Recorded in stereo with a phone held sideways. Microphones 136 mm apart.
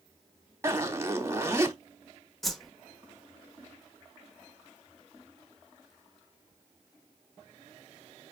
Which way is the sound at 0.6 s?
20° right (ahead or behind).